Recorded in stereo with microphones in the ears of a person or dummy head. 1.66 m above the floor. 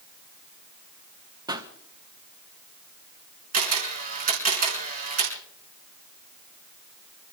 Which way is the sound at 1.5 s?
25° right (ahead or behind).